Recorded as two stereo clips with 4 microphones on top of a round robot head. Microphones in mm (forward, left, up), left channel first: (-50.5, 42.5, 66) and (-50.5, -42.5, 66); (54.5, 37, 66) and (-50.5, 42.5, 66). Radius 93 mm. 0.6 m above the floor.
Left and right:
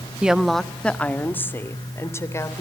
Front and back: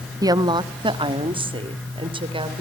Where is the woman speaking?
165° right, 1.3 m; by 2.6 s 145° left, 3.5 m.